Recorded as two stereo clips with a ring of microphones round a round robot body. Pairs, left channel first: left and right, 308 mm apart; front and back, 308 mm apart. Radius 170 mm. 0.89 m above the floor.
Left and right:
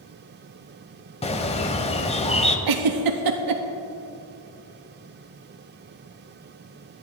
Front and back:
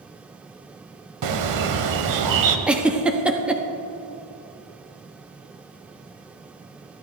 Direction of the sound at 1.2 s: 160° left.